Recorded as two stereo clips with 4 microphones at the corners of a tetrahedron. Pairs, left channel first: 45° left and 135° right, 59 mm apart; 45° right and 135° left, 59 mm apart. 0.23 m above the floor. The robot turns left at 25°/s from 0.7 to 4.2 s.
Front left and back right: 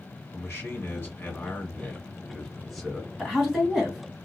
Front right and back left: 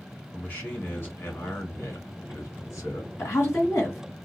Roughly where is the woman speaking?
Ahead right.